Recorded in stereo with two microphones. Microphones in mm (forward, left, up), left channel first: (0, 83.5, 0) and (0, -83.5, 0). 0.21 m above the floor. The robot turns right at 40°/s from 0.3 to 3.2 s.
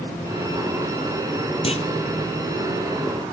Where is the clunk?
35° left (ahead or behind), 0.9 m; by 1.9 s 45° left (ahead or behind), 0.9 m.